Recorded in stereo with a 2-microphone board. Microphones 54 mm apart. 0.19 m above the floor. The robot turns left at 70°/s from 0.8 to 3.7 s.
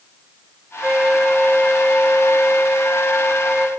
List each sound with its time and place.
0.8 s a flute: 165° right, 1.1 m; by 3.7 s 5° right, 1.1 m